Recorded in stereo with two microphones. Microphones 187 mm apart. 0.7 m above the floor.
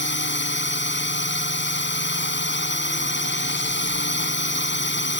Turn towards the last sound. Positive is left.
turn(degrees=80)